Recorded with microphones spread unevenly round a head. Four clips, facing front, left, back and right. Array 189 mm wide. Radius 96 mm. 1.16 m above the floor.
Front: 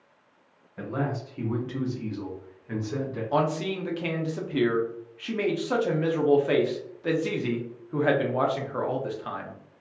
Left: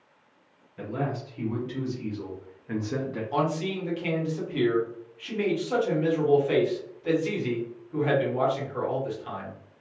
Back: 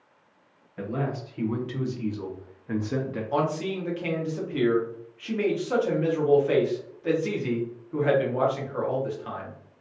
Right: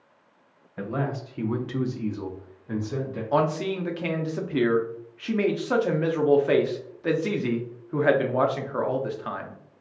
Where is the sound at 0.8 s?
80° right, 1.0 m; by 3.2 s 135° left, 0.6 m.